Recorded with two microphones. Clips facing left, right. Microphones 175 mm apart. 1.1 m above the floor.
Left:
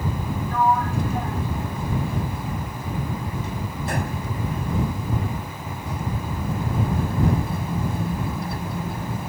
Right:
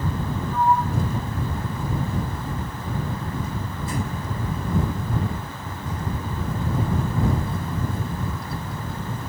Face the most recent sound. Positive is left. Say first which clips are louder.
# even
turn(degrees=75)  # may be behind; listen again after turning